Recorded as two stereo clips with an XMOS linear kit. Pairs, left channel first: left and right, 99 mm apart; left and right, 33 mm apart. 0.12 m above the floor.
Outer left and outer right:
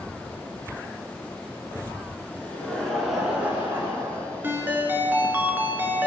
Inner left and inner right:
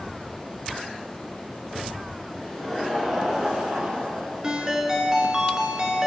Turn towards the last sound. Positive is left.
turn(degrees=-20)  # may be behind; listen again after turning